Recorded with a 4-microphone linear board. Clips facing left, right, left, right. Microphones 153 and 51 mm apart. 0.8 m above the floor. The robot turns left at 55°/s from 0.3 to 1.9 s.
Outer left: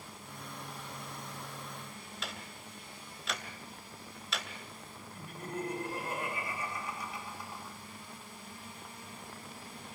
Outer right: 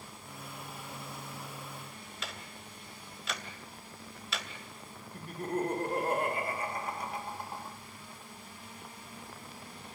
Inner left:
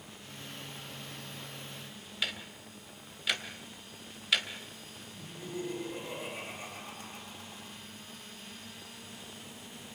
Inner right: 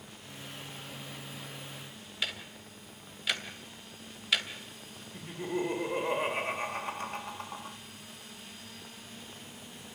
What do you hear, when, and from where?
2.2 s ticking: centre (ahead or behind), 3 m
5.1 s laughter: 60° right (ahead or behind), 2.5 m